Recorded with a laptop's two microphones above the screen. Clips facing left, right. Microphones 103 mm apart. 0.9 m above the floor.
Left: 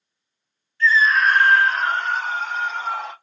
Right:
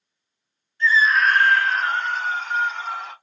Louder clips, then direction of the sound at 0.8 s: Left 1 dB; 20° right (ahead or behind).